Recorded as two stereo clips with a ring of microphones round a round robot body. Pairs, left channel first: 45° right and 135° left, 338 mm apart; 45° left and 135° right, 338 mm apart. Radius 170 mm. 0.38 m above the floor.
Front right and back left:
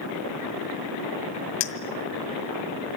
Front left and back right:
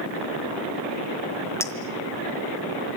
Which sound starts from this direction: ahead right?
A clink, at 1.6 s.